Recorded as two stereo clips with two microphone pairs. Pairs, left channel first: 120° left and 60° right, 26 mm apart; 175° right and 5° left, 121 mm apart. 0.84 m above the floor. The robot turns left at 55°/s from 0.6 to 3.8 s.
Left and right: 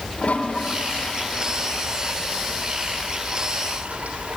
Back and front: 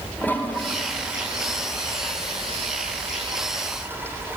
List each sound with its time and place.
0.2 s a toilet flushing: 110° left, 3 m; by 4.4 s 65° right, 3 m